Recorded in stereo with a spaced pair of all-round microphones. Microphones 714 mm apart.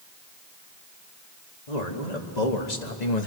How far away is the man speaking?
About 3 m.